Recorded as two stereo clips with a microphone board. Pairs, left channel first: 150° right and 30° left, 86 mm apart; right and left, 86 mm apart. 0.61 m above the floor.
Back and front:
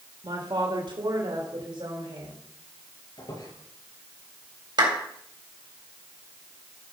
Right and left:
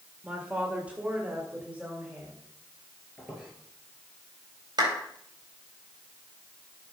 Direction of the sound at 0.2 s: 20° left.